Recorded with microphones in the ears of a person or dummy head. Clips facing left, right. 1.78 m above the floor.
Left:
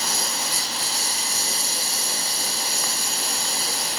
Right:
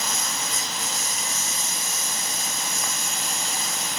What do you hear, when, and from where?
0.0 s a lawn mower: 25° left (ahead or behind)